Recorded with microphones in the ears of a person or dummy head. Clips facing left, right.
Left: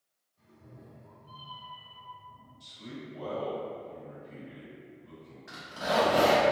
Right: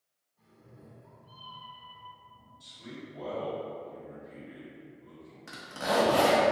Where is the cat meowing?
15° right (ahead or behind), 1.8 m; by 2.5 s 30° left (ahead or behind), 1.5 m.